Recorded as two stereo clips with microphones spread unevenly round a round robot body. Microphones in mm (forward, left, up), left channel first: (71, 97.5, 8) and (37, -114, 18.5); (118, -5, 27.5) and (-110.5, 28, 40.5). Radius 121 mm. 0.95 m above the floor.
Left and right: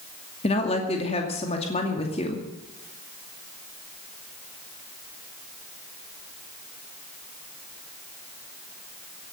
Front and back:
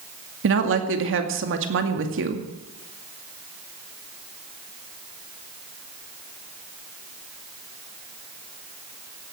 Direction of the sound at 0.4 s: 145° left.